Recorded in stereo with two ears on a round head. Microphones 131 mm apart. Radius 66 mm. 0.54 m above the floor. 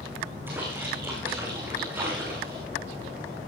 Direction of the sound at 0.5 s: 15° right (ahead or behind).